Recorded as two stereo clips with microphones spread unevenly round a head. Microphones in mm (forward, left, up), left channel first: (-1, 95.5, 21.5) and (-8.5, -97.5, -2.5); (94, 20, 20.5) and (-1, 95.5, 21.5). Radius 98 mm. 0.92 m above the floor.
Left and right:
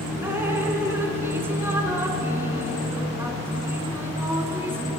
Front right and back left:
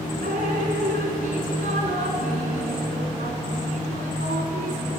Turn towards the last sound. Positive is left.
turn(degrees=-175)